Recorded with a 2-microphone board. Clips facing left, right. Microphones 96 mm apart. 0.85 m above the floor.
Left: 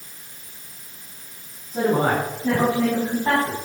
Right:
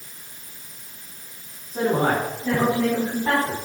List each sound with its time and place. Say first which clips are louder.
1.7 s a woman speaking: left 1 dB; 40° left (ahead or behind), 6.5 m; by 3.6 s 30° left (ahead or behind), 5.5 m